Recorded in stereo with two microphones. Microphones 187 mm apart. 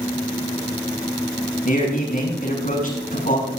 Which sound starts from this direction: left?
A man speaking, at 1.6 s.